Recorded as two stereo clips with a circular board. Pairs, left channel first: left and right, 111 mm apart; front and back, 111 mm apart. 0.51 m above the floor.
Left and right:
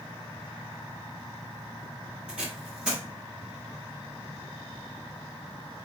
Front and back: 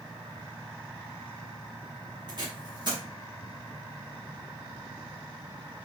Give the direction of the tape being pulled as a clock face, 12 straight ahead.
6 o'clock.